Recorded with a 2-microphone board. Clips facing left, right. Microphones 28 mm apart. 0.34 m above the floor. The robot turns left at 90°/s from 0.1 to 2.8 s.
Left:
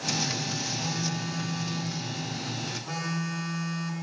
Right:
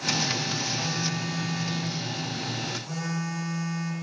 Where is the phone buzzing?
110° right, 0.5 m; by 3.9 s 65° left, 0.5 m.